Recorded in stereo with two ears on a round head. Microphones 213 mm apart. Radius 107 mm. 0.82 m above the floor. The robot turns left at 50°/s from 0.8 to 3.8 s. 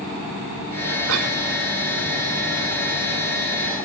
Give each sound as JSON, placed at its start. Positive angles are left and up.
{"t": 1.1, "sound": "a cough", "side_deg": -65, "distance_m": 3.0}